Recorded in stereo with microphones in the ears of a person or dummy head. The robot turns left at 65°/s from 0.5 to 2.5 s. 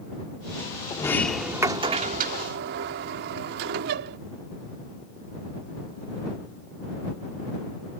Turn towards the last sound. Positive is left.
turn(degrees=-75)